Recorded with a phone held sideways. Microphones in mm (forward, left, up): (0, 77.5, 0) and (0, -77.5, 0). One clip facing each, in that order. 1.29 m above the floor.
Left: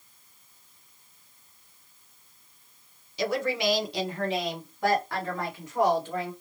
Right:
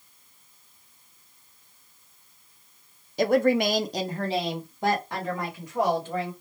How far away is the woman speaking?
About 0.6 m.